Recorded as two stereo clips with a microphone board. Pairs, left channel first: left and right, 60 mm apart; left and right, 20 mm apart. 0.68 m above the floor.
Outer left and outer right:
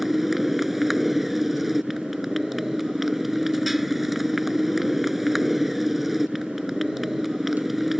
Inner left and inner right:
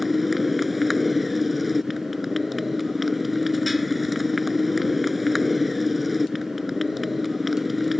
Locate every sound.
0.0 s a motorcycle: 5° right (ahead or behind)